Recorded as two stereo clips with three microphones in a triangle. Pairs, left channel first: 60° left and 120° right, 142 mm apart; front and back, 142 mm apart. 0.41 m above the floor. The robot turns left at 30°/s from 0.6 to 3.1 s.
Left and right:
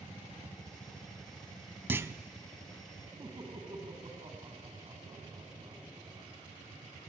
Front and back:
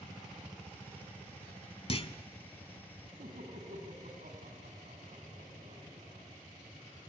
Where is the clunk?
45° right, 0.7 m; by 2.1 s 50° right, 0.7 m.